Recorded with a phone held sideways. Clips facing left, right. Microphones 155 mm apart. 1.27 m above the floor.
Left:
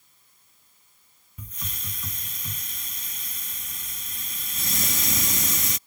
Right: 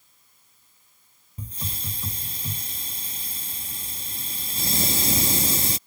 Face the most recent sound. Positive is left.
turn(degrees=-35)  # may be behind; listen again after turning